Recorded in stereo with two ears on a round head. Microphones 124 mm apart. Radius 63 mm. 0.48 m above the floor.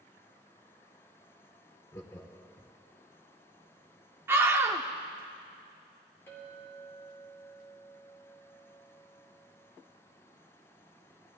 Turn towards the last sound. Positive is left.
turn(degrees=20)  # may be behind; listen again after turning